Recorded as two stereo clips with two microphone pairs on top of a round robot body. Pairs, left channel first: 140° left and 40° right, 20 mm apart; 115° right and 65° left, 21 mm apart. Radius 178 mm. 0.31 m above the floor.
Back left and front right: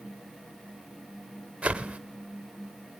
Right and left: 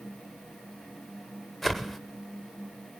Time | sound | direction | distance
1.6 | a whoosh | 30° right | 0.9 m